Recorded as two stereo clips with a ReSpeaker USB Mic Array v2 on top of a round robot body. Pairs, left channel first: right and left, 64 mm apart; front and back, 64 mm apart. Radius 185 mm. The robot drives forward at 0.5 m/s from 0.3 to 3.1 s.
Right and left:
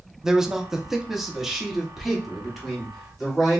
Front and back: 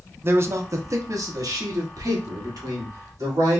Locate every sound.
0.2 s a man speaking: 165° left, 0.7 m; by 3.6 s 175° left, 1.9 m